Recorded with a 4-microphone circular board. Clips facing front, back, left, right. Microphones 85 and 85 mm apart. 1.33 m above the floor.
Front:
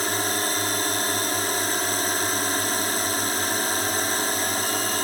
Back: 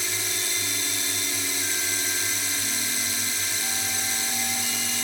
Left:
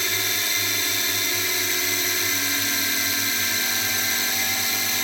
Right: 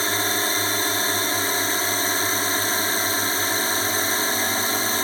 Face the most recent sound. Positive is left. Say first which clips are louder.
# front 8 dB, right 5 dB
turn(degrees=-40)